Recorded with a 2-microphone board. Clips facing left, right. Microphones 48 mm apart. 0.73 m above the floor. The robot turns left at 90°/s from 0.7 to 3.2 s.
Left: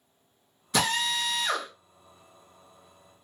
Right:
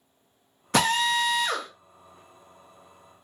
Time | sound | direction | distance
0.7 | a drill | 110° right | 1.0 m